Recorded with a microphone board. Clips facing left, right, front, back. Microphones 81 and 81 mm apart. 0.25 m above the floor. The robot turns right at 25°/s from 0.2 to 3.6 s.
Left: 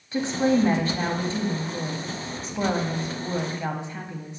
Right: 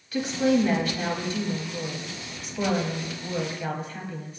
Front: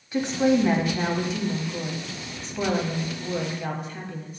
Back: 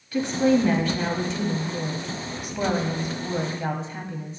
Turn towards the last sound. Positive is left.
turn(degrees=140)